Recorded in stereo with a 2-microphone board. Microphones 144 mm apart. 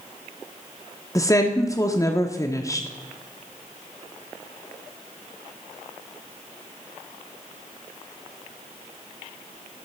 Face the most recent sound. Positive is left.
turn(degrees=25)  # may be behind; listen again after turning